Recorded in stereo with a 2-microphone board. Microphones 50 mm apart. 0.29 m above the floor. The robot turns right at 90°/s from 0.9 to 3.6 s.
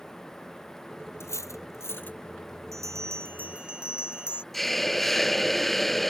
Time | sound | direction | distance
1.2 | cutlery clinking | 60° left (ahead or behind) | ?
2.7 | a bell | 100° right | ?
4.5 | a hiss | 5° left (ahead or behind) | ?